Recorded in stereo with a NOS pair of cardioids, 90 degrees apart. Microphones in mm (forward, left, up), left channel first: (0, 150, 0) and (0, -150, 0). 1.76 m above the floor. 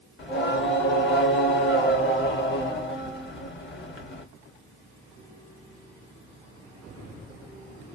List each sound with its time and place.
0.2 s singing: 35° left, 1.2 m